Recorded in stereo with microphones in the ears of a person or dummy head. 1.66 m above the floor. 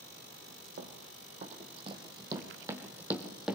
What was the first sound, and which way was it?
Running footsteps, 50° right (ahead or behind).